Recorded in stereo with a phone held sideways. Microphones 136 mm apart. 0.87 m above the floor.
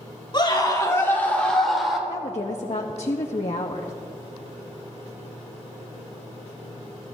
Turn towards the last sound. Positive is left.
turn(degrees=60)  # may be behind; listen again after turning